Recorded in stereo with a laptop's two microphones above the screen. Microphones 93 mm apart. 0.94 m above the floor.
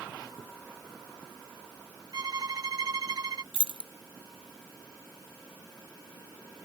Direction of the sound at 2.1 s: 45° right (ahead or behind).